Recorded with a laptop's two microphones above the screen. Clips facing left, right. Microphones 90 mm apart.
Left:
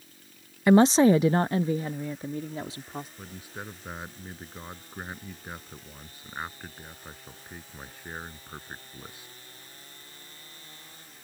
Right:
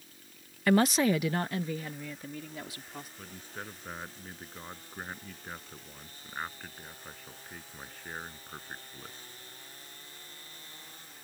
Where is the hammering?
No hammering in this recording.